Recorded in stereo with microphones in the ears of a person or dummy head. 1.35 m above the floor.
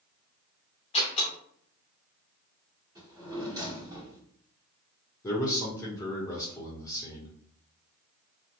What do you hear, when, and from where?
0.9 s a door slam: 25° left (ahead or behind), 0.6 m
3.0 s a drawer: 20° right (ahead or behind), 1.7 m
5.2 s a man speaking: 20° left (ahead or behind), 0.9 m